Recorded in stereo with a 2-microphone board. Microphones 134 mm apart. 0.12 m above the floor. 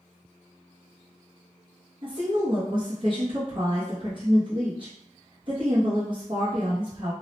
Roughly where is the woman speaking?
Right.